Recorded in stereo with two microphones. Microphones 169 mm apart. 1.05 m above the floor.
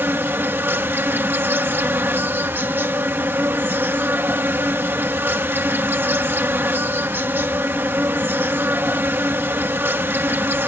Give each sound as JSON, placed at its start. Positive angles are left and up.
{"t": 0.0, "sound": "an insect", "side_deg": -10}